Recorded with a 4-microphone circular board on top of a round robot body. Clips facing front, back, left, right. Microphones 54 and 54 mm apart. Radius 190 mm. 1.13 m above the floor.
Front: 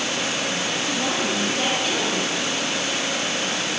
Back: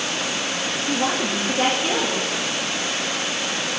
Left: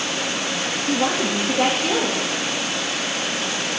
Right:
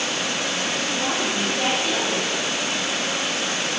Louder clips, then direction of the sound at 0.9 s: Back 4 dB, left 3 dB; 125° left.